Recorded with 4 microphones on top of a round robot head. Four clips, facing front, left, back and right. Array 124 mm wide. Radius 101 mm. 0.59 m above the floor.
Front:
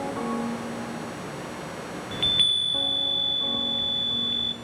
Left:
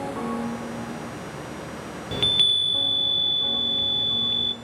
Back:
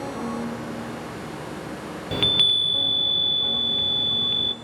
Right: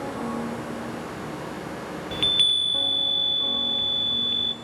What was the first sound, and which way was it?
A chime, 165° left.